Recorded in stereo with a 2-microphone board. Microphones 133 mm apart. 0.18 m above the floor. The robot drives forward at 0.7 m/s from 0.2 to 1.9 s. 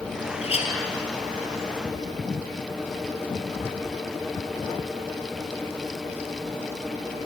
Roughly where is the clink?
Left.